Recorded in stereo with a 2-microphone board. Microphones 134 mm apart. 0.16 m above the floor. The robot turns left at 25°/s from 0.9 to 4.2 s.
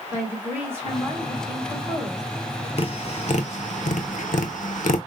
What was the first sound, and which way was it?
A woman speaking, 15° right (ahead or behind).